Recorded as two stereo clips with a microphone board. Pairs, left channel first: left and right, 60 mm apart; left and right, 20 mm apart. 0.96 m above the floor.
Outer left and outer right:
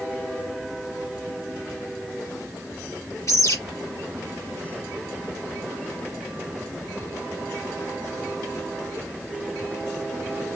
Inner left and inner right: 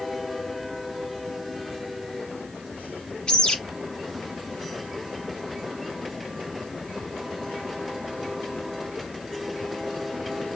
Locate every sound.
3.3 s a bird: 60° left (ahead or behind), 1.9 m